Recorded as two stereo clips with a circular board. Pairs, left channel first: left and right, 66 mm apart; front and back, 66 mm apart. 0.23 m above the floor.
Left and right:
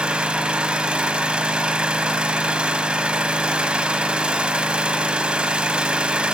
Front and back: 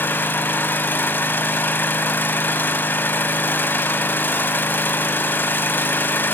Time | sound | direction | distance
0.0 | an engine running | 25° right | 0.7 m